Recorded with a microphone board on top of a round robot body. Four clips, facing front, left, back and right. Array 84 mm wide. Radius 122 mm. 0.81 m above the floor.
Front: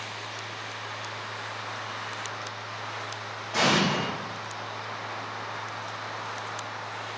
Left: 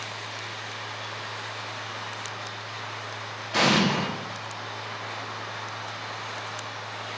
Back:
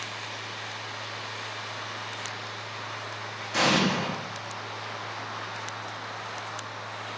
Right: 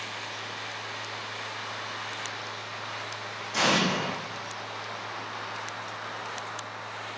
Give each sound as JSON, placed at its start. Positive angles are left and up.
{"t": 3.5, "sound": "an explosion", "azimuth_deg": 100, "distance_m": 0.8}